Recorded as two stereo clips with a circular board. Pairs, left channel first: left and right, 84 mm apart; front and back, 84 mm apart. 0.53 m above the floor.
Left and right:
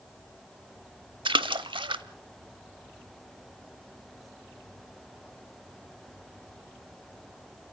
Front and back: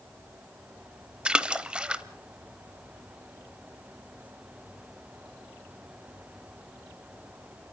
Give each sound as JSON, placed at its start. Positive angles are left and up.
{"t": 1.2, "sound": "a splash", "azimuth_deg": -100, "distance_m": 0.9}